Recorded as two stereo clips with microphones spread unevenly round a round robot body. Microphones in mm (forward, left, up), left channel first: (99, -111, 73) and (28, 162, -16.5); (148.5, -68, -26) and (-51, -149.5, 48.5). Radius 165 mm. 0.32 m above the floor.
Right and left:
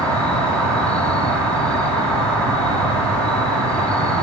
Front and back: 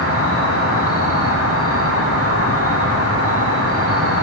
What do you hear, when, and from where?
0.0 s an insect: 10° left, 2.5 m